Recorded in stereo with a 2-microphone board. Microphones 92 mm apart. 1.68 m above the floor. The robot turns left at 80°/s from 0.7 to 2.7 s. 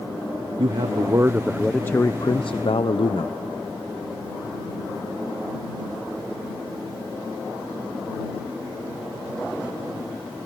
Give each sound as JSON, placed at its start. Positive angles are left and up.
{"t": 0.6, "sound": "a man speaking", "azimuth_deg": -110}